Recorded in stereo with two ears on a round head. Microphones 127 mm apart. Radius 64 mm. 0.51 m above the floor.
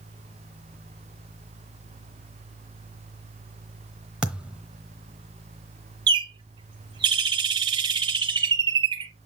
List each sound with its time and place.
4.2 s a thud: 5° right (ahead or behind), 1.0 m
6.1 s a bird: 30° right (ahead or behind), 0.5 m